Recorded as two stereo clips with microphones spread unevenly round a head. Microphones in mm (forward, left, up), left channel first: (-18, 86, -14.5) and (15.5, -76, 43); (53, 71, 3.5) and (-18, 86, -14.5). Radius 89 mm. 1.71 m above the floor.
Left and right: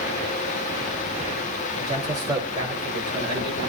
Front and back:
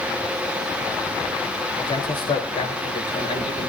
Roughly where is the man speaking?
Ahead.